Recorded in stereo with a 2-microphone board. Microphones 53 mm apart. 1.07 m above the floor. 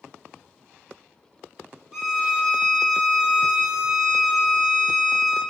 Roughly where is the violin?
Centre.